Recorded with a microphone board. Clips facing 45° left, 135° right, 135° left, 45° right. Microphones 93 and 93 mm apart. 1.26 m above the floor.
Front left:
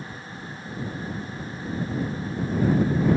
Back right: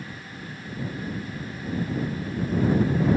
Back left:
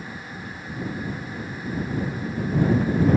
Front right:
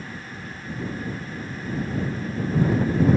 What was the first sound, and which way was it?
Only background noise.